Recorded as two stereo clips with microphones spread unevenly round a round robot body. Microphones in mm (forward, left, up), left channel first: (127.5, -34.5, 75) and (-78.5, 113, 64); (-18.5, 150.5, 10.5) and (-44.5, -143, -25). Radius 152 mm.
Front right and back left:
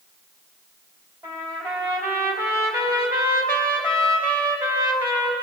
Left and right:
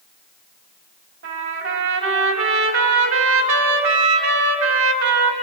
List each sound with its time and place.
1.2 s a trumpet: 135° right, 3 m